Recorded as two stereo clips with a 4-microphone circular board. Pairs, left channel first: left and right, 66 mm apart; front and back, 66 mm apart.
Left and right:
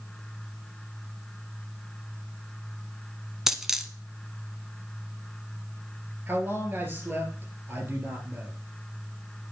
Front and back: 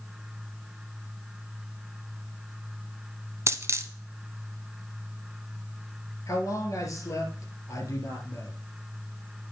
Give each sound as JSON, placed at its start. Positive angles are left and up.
{"t": 3.5, "sound": "a dropped coin", "azimuth_deg": -170, "distance_m": 0.8}
{"t": 6.3, "sound": "a man speaking", "azimuth_deg": -35, "distance_m": 2.5}